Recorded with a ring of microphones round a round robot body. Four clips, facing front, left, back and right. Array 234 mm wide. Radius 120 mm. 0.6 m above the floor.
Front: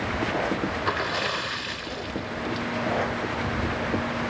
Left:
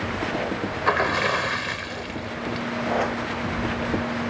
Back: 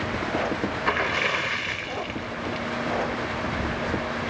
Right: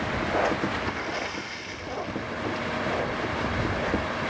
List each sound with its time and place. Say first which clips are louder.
0.9 s a splash: left 9 dB, back 2 dB; 105° left